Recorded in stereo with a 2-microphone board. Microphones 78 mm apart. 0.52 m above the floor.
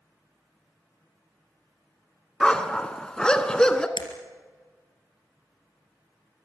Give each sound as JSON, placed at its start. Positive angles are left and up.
{"t": 2.4, "sound": "a dog barking", "side_deg": 10, "distance_m": 1.4}
{"t": 4.0, "sound": "breaking glass", "side_deg": 85, "distance_m": 3.0}